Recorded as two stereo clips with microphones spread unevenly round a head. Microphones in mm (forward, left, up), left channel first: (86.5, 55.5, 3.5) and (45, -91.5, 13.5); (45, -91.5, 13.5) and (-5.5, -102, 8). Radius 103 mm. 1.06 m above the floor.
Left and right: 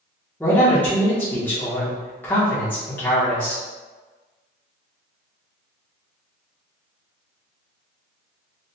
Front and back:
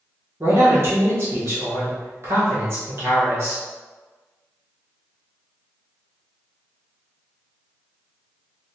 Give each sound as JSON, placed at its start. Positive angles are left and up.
{"t": 0.4, "sound": "a man speaking", "azimuth_deg": 155, "distance_m": 1.1}